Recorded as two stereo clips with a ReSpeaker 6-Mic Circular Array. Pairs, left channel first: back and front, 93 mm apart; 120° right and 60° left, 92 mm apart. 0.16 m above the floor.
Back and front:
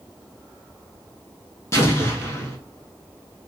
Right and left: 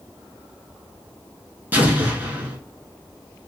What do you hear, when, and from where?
1.7 s an explosion: 125° left, 0.9 m